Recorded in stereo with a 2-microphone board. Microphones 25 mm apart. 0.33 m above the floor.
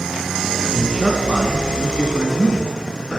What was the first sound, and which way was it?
A man speaking, 35° right (ahead or behind).